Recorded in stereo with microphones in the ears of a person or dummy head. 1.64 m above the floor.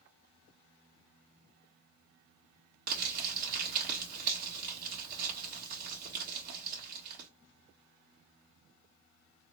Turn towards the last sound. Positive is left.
turn(degrees=-40)  # may be behind; listen again after turning